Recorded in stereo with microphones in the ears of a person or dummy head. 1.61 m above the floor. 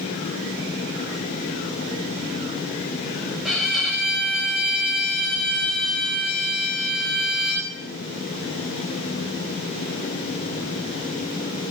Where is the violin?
Centre (ahead or behind), 1.6 m.